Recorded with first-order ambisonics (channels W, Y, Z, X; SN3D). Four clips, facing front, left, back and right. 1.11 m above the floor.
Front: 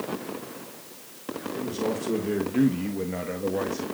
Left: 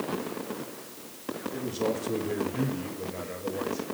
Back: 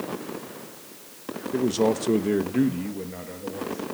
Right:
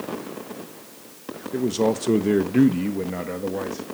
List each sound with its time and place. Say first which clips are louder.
1.5 s a man speaking: right 9 dB, back 7 dB; 135° right, 1.5 m; by 3.8 s 55° right, 2 m